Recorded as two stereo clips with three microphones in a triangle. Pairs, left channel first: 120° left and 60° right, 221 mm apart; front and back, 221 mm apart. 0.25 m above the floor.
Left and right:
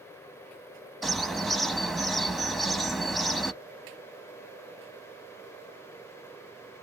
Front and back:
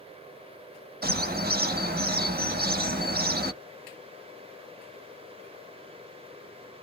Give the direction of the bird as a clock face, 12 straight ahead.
5 o'clock.